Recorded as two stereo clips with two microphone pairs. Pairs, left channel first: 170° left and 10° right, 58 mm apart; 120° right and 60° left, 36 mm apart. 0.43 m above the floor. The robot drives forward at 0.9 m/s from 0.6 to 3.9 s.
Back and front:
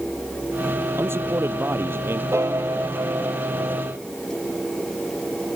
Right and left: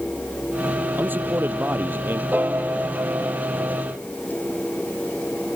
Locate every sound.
1.0 s a man speaking: 35° left
2.3 s a piano: 25° left; by 3.8 s 35° left